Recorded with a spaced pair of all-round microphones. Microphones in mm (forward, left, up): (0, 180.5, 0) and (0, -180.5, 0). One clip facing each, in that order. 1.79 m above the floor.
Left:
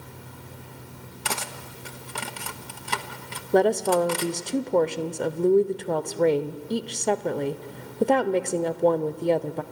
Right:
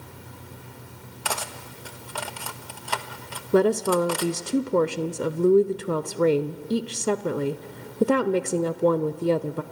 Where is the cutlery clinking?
35° left (ahead or behind), 1.1 m.